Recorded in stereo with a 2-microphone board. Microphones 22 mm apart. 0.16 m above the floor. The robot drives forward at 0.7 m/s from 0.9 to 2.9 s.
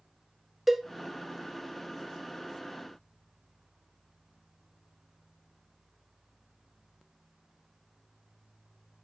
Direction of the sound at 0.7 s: 5° right (ahead or behind).